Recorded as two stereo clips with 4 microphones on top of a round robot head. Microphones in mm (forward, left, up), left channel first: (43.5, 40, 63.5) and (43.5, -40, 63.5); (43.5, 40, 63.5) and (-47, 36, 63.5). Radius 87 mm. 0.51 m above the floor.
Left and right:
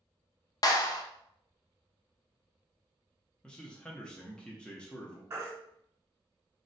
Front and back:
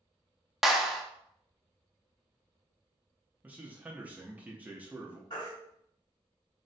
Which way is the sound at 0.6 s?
95° left.